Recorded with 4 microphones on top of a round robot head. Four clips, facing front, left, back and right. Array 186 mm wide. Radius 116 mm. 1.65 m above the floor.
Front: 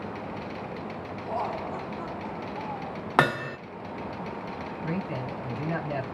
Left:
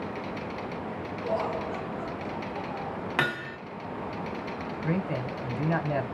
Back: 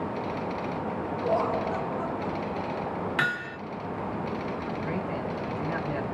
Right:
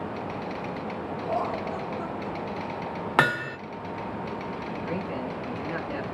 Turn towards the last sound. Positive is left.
turn(degrees=70)